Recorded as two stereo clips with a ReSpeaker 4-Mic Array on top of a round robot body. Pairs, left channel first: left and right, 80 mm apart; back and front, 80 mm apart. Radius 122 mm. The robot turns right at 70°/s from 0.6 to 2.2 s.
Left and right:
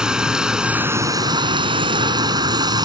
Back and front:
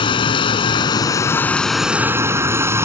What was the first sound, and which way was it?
Running water, 170° right.